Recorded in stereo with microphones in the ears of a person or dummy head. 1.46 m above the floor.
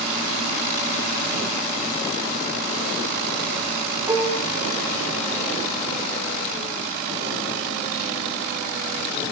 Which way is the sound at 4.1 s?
15° right (ahead or behind).